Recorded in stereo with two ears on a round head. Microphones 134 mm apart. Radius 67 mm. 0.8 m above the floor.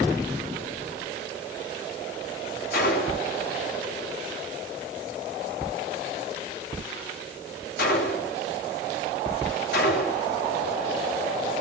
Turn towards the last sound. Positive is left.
turn(degrees=70)  # may be behind; listen again after turning